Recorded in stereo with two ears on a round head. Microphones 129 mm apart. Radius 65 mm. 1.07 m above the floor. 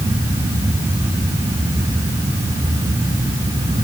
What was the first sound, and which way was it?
Only background noise.